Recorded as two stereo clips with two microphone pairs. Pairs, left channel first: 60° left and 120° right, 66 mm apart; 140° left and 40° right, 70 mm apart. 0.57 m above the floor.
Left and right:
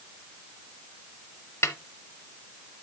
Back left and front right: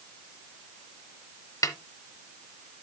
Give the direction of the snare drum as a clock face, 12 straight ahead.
8 o'clock.